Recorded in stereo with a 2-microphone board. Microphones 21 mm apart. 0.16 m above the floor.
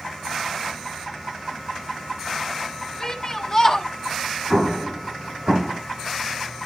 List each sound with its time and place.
3.0 s a shout: 25° left (ahead or behind), 1.8 m
4.5 s an explosion: 50° right (ahead or behind), 5.5 m